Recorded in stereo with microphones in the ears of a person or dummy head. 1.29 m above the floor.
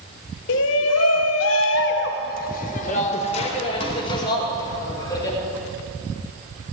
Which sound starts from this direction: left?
A shout, at 0.5 s.